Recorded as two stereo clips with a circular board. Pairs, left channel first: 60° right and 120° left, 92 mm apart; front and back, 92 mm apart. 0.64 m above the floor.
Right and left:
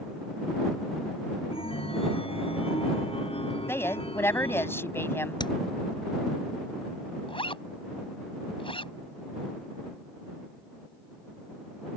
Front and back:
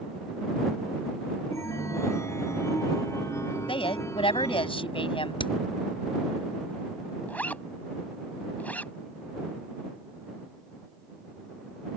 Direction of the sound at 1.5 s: 60° right.